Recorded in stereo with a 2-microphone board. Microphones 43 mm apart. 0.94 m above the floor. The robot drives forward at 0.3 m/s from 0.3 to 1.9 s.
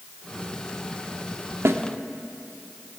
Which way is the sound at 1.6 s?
85° right.